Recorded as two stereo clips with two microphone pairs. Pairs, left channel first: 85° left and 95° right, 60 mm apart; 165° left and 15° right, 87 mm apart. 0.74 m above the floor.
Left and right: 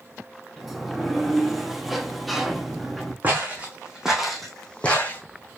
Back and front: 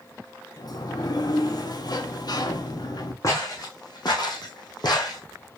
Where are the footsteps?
155° right, 1.9 m; by 5.2 s 135° left, 1.5 m.